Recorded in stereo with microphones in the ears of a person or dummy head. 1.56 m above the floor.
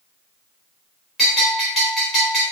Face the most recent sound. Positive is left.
turn(degrees=5)  # may be behind; listen again after turning